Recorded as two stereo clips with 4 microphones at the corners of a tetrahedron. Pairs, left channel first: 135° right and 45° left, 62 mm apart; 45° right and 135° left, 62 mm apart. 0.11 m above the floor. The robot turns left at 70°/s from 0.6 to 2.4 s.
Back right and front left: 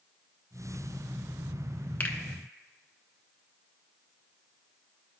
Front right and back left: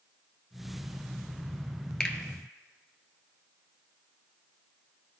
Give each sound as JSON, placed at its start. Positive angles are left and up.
{"t": 2.0, "sound": "a finger snap", "azimuth_deg": -105, "distance_m": 0.9}